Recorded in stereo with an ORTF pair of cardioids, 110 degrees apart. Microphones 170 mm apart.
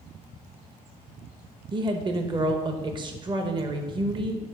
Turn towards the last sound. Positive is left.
turn(degrees=-30)